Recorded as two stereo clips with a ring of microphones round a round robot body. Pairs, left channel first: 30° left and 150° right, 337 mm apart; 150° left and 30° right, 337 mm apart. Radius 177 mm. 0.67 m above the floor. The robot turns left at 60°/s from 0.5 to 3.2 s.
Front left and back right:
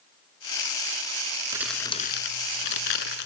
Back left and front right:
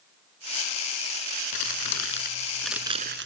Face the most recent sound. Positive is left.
turn(degrees=30)